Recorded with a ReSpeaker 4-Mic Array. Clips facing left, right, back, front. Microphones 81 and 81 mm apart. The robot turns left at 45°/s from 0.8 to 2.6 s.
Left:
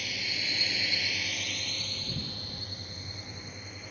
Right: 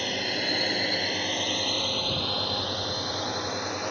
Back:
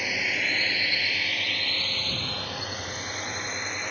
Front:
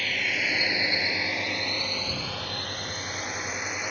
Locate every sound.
0.0 s a drone: 105° right; by 3.9 s 85° right